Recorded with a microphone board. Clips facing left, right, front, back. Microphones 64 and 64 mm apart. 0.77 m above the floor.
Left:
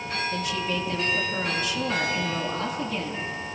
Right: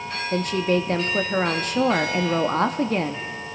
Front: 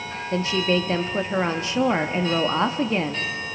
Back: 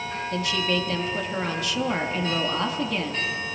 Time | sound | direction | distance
0.3 | a woman speaking | 55° right | 0.8 m